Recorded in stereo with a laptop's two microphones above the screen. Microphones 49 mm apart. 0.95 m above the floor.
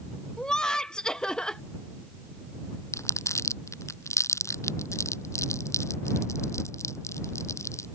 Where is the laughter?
15° left (ahead or behind).